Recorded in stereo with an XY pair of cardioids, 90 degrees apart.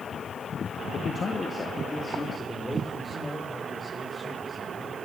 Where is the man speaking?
55° left, 1.4 m; by 4.9 s straight ahead, 6.5 m.